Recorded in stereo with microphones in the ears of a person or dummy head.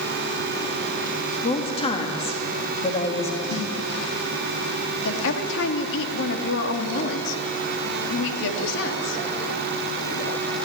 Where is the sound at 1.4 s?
30° left (ahead or behind), 3 m.